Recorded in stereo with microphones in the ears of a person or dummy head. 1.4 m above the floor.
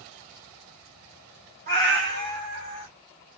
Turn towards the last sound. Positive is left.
turn(degrees=-45)  # may be behind; listen again after turning